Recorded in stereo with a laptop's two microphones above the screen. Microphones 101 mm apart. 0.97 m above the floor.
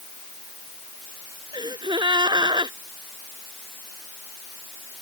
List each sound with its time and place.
1.5 s a gasp: 45° right (ahead or behind)